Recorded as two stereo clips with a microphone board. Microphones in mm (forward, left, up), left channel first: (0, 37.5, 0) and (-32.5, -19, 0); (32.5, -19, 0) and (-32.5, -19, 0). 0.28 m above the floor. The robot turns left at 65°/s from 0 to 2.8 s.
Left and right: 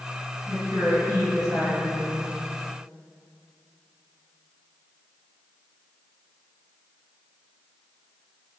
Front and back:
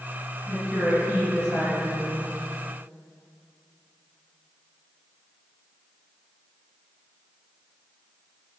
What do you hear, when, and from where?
0.5 s a woman speaking: 70° right, 2.0 m; by 2.2 s 175° left, 2.0 m